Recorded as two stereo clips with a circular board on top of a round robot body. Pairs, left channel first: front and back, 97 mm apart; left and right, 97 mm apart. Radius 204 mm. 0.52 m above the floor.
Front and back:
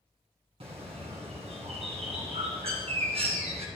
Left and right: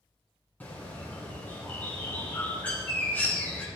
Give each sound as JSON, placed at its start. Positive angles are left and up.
{"t": 0.6, "sound": "a bird", "azimuth_deg": 165, "distance_m": 2.5}